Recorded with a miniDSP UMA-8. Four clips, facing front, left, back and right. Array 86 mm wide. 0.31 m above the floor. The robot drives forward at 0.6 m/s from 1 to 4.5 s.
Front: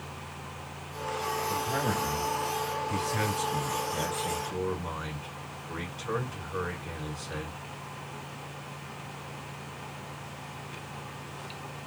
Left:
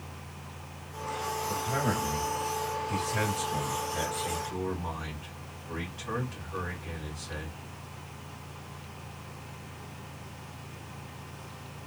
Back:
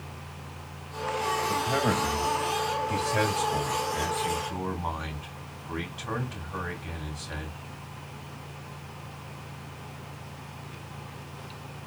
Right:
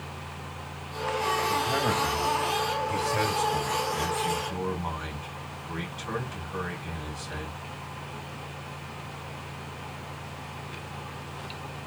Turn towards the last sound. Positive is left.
turn(degrees=-175)